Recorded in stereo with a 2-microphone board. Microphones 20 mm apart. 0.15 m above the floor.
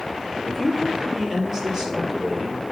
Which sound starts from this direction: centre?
A woman speaking, at 0.4 s.